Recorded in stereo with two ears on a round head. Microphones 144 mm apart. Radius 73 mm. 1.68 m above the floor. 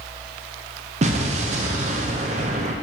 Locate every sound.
1.0 s an explosion: 40° right (ahead or behind), 0.8 m